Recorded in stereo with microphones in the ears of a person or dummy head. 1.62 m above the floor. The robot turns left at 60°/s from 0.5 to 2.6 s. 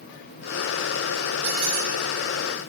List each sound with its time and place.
1.4 s a squeak: 80° right, 9 m; by 1.9 s 70° right (ahead or behind), 9 m